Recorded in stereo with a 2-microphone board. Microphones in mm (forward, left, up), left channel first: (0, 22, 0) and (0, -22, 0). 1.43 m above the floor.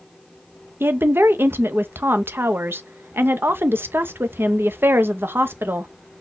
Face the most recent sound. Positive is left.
turn(degrees=-60)  # may be behind; listen again after turning